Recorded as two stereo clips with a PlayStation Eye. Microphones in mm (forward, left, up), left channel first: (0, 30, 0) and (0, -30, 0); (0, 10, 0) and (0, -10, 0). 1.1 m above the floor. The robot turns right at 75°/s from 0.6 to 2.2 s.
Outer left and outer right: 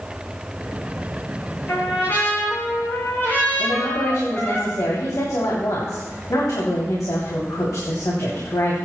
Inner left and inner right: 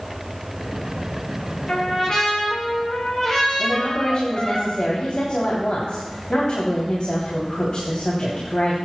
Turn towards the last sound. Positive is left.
turn(degrees=80)